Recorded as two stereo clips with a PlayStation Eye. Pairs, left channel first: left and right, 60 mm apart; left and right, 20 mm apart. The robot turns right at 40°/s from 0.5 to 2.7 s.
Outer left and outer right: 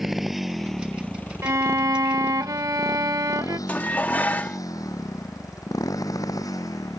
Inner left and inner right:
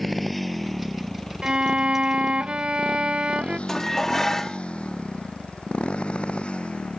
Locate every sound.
0.0 s a motorcycle: 5° right (ahead or behind); by 7.0 s 90° left
1.4 s a violin: 125° right; by 3.6 s 75° right
3.7 s dishes clattering: 30° left (ahead or behind)